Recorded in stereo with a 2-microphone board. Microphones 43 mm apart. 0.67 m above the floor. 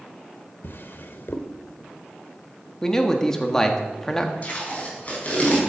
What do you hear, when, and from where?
0.6 s a drawer: 55° left (ahead or behind), 0.9 m
2.8 s a man speaking: 15° left (ahead or behind), 1.3 m
4.4 s tape being pulled: 35° left (ahead or behind), 3.5 m